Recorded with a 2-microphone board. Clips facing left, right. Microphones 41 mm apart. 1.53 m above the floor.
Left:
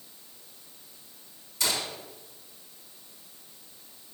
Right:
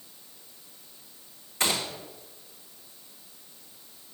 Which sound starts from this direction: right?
A gunshot, at 1.6 s.